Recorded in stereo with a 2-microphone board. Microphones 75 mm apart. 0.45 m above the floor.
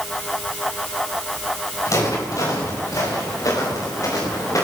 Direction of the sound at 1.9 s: 45° left (ahead or behind).